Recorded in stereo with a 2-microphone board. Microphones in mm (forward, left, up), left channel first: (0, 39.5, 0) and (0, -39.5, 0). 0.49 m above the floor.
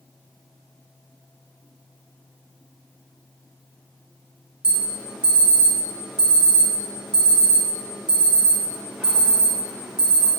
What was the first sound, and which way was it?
An alarm, 15° right (ahead or behind).